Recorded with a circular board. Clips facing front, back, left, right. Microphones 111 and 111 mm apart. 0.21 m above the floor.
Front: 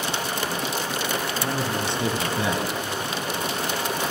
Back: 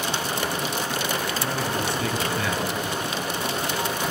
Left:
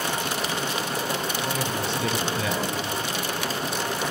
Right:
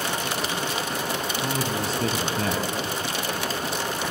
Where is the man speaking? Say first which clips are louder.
Even, right 1 dB; 60° right, 1.8 m.